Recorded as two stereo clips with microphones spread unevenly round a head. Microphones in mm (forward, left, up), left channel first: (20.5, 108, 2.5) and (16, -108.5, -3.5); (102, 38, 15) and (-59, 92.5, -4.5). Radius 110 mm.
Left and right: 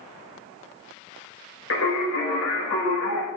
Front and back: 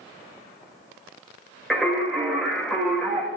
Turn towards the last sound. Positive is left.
turn(degrees=70)